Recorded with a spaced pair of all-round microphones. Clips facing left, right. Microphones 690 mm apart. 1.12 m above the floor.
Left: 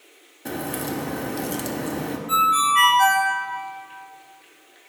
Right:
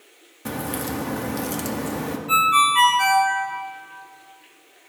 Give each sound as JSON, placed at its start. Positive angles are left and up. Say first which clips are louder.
{"t": 0.5, "sound": "a crack", "louder": "even", "side_deg": -40, "distance_m": 0.7}
{"t": 2.3, "sound": "a ringtone", "louder": "right 1 dB", "side_deg": -40, "distance_m": 1.7}